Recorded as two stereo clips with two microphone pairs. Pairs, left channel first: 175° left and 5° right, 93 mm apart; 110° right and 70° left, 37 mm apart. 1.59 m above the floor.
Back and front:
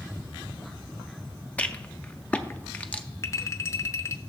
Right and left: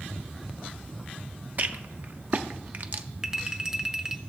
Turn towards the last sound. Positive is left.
turn(degrees=135)